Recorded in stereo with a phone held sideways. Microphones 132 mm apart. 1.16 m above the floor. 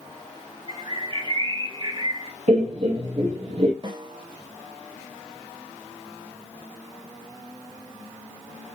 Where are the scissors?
I don't hear scissors.